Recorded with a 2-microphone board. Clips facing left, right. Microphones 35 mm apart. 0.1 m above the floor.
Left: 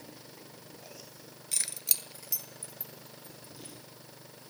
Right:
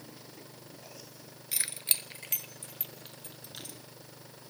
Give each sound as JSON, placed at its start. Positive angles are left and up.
{"t": 1.5, "sound": "keys jangling", "side_deg": -15, "distance_m": 0.9}